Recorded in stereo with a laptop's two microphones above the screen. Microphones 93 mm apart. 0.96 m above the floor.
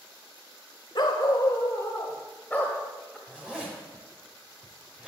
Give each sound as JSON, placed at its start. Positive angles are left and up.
{"t": 0.9, "sound": "a dog barking", "side_deg": 55, "distance_m": 1.2}
{"t": 3.3, "sound": "a zipper", "side_deg": -10, "distance_m": 4.0}